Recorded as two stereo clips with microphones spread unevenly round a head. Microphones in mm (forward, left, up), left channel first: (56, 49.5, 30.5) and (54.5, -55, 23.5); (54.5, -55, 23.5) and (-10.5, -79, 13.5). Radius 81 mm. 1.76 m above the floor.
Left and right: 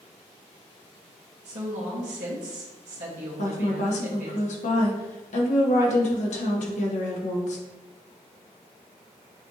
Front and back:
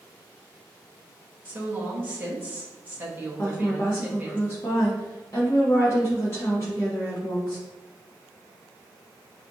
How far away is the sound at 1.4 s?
About 1.2 m.